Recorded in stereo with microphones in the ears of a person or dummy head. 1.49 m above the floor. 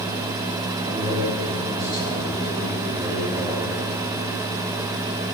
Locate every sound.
0.8 s a man speaking: 45° right (ahead or behind), 8 m